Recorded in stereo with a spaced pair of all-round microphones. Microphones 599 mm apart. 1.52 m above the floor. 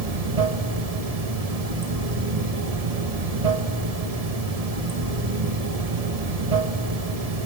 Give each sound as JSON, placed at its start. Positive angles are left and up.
{"t": 0.0, "sound": "running water", "side_deg": -75, "distance_m": 1.8}